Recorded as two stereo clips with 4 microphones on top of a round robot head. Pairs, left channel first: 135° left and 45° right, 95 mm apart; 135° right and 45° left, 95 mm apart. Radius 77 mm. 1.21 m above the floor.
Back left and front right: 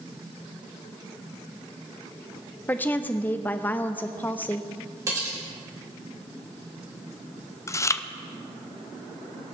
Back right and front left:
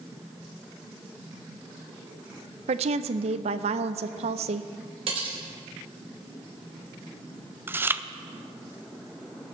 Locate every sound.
2.7 s a woman speaking: 60° left, 0.6 m
5.1 s cutlery clinking: 15° left, 3 m
7.7 s chewing: 100° left, 0.7 m